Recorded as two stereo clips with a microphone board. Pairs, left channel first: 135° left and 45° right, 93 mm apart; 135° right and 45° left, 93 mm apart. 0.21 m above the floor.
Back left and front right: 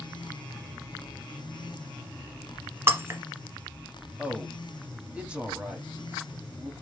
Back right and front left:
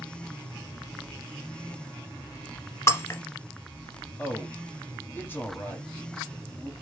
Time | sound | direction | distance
2.9 | breaking glass | 95° right | 0.7 m
4.2 | a man speaking | 105° right | 1.0 m